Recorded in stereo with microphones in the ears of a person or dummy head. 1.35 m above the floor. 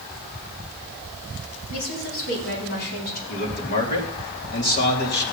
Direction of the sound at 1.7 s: 75° left (ahead or behind).